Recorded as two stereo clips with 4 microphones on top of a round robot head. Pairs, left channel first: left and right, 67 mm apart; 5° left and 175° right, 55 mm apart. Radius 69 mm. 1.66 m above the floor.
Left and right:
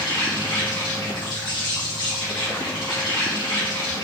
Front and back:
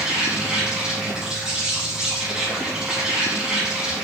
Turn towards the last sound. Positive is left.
turn(degrees=105)